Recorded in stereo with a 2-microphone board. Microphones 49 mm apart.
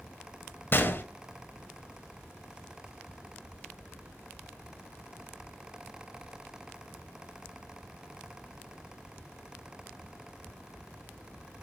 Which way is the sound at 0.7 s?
45° left (ahead or behind).